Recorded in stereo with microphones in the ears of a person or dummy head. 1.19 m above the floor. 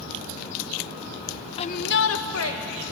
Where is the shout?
30° left (ahead or behind), 0.6 m; by 2.9 s 75° left (ahead or behind), 2.0 m.